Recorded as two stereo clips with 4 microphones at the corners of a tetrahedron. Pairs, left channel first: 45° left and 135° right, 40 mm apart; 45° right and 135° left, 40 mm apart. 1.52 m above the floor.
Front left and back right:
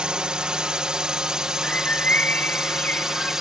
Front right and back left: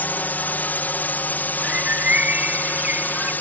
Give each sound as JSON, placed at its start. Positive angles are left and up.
{"t": 0.0, "sound": "a drone", "azimuth_deg": -70}
{"t": 1.6, "sound": "a bird", "azimuth_deg": 90}